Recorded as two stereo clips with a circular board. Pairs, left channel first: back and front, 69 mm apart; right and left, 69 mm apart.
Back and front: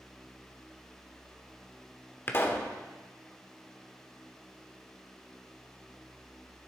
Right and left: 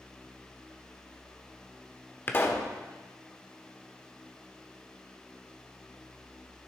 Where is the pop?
135° right, 1.1 m.